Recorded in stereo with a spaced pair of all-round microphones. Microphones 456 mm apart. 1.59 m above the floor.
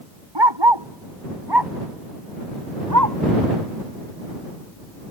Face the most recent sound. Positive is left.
turn(degrees=-40)  # may be behind; listen again after turning